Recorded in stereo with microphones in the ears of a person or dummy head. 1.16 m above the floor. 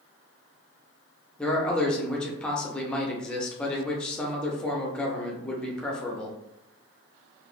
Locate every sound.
1.4 s a man speaking: 10° left (ahead or behind), 0.6 m